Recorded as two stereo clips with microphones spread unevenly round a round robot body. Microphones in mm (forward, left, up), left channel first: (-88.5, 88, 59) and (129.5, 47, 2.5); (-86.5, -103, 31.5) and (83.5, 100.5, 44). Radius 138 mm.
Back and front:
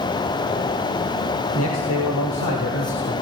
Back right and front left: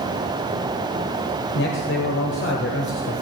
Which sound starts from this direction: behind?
A man speaking, at 1.6 s.